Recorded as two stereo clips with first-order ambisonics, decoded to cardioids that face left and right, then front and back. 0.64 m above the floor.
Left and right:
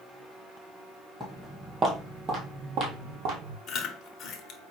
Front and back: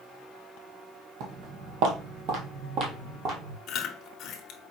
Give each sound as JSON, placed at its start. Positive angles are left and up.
{"t": 1.2, "sound": "footsteps", "azimuth_deg": 175, "distance_m": 1.2}
{"t": 3.7, "sound": "chewing", "azimuth_deg": 45, "distance_m": 0.7}